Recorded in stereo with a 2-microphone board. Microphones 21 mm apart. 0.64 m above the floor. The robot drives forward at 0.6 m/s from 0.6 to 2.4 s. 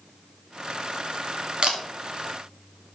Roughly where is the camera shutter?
Right.